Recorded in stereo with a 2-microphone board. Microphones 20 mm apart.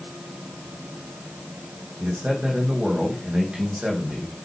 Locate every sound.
2.0 s a man speaking: 60° right (ahead or behind), 4 m